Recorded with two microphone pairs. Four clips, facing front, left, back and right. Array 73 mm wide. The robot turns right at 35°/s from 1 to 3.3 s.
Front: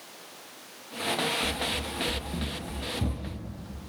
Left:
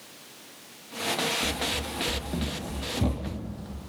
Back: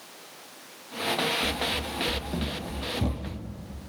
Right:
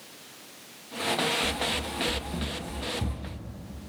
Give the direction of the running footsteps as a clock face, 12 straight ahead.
7 o'clock.